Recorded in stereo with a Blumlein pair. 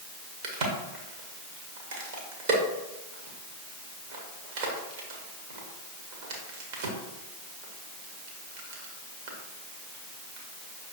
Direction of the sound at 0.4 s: 55° right.